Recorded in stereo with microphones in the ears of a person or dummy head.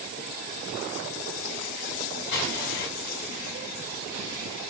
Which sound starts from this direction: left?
An explosion, at 2.3 s.